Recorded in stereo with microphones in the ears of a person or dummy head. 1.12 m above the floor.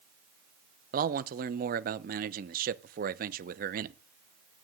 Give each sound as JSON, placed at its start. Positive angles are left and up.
{"t": 0.9, "sound": "a man speaking", "side_deg": -40, "distance_m": 0.8}